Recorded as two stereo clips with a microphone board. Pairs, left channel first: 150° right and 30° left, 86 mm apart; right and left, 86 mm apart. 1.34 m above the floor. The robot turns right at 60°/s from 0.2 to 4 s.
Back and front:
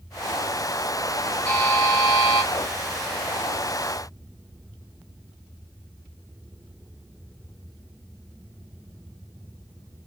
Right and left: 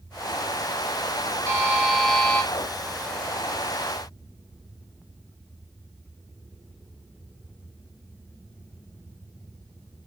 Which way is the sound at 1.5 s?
145° left.